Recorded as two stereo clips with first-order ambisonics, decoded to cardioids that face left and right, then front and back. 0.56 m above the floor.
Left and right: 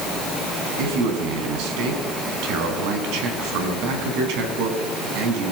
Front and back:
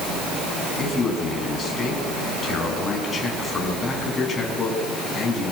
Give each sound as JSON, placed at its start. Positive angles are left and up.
{"t": 0.8, "sound": "a man speaking", "azimuth_deg": -70, "distance_m": 4.5}